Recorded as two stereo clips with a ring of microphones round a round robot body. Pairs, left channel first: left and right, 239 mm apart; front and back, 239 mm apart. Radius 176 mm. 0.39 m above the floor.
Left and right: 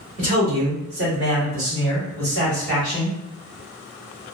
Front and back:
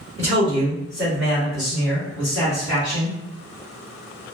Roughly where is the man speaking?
Behind right.